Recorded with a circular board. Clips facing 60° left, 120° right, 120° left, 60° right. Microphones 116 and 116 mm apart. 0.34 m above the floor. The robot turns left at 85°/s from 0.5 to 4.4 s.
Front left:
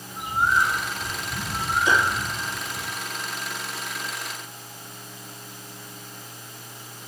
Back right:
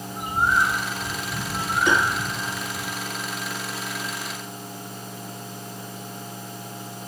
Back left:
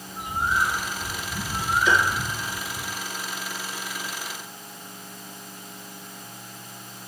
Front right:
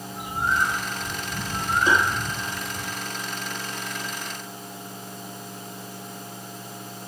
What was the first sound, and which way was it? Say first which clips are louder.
A bird: even, even; 150° left.